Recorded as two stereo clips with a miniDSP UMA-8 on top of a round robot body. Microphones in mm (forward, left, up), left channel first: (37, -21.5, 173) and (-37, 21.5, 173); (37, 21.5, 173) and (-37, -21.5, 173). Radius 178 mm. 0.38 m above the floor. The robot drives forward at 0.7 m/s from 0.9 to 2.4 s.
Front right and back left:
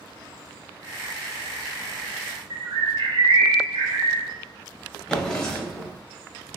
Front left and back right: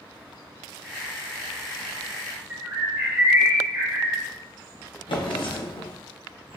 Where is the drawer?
50° left, 1.1 m.